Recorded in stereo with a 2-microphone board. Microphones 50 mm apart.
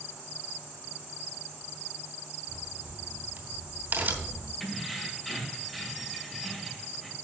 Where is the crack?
35° right (ahead or behind), 3 m.